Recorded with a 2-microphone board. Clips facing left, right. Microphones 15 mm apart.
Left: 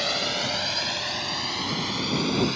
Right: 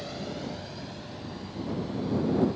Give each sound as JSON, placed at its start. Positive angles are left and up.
{"t": 0.0, "sound": "a drone", "side_deg": 60}